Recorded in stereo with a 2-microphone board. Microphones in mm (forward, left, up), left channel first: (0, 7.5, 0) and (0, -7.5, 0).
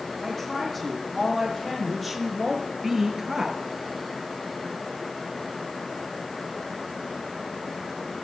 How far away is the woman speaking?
About 5.5 m.